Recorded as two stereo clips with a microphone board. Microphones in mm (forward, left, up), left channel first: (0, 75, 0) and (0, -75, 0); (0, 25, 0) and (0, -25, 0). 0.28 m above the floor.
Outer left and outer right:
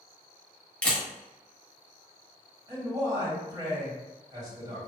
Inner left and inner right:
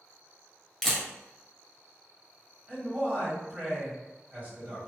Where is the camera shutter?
10° left (ahead or behind), 1.1 m.